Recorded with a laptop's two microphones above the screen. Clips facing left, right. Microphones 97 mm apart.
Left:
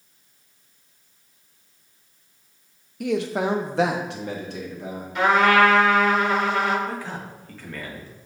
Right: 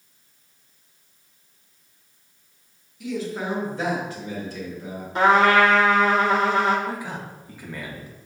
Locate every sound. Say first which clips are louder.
3.0 s a man speaking: left 5 dB; 60° left (ahead or behind), 0.7 m; by 5.0 s 65° left (ahead or behind), 1.8 m
5.2 s a trumpet: right 1 dB; 35° right (ahead or behind), 1.4 m
6.9 s a man speaking: right 1 dB; 15° right (ahead or behind), 1.6 m